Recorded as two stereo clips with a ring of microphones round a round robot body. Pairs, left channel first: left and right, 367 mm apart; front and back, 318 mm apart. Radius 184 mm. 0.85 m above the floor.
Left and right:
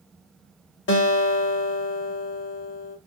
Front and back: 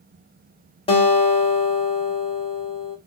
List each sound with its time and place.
0.9 s a guitar: 60° left, 0.7 m